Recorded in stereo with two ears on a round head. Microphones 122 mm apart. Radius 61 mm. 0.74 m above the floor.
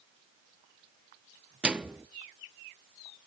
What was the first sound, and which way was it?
A microwave, 5° right (ahead or behind).